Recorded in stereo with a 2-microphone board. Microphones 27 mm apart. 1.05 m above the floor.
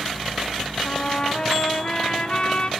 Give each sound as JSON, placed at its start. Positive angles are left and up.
{"t": 0.8, "sound": "a trumpet", "side_deg": 40, "distance_m": 2.0}